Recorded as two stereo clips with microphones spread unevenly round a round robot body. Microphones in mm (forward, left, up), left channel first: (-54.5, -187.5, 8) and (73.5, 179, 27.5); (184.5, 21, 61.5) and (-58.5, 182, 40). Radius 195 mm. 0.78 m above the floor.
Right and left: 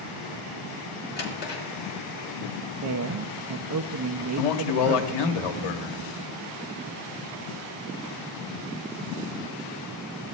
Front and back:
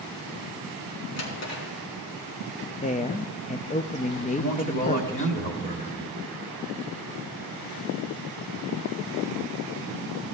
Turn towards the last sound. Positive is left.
turn(degrees=-100)